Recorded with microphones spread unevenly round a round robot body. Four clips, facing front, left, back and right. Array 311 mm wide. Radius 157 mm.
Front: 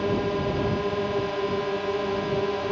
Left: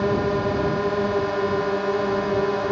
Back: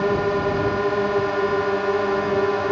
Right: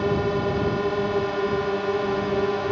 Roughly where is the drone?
Behind.